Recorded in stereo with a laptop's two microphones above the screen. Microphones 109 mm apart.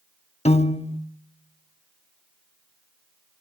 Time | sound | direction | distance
0.5 | a piano | 70° left (ahead or behind) | 0.7 m